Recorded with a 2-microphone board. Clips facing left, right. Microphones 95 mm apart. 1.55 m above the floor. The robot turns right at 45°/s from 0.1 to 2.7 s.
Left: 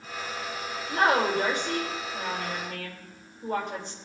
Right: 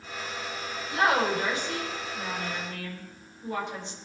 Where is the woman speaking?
45° left, 5.5 m; by 4.0 s 130° left, 5.5 m.